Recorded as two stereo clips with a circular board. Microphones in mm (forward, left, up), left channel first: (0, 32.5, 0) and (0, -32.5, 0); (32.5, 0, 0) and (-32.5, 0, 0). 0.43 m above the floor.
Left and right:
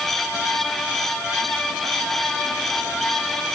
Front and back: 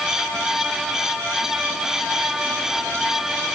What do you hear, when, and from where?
Only background noise.